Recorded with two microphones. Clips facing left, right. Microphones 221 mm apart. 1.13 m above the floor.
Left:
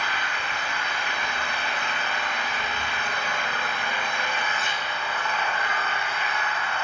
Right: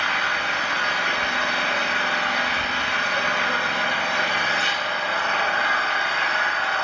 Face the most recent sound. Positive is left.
turn(degrees=-70)  # may be behind; listen again after turning